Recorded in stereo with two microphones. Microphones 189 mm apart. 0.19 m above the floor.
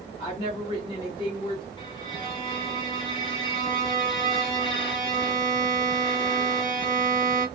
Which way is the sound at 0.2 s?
30° left (ahead or behind).